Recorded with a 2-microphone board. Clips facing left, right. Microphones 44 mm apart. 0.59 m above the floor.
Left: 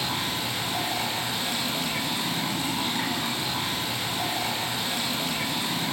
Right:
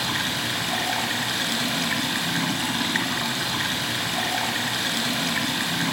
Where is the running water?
75° right (ahead or behind), 1.3 m.